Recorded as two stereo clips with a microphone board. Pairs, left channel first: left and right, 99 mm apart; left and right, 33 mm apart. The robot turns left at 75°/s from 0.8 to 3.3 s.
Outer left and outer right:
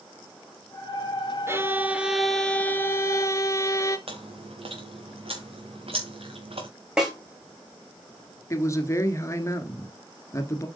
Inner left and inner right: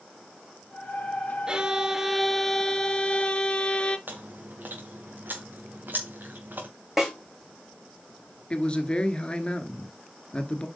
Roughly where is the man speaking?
Left.